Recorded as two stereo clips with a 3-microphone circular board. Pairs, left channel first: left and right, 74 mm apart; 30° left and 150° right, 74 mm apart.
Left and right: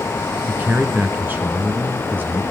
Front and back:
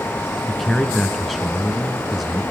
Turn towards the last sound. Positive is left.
turn(degrees=-55)